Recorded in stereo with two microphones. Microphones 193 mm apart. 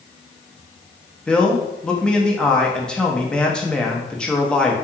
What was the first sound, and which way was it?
A man speaking, 5° left (ahead or behind).